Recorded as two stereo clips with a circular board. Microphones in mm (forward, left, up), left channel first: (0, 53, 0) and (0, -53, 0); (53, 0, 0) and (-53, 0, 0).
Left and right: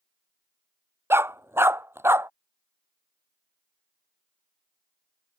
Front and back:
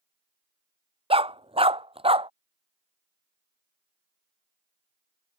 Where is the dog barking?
155° right.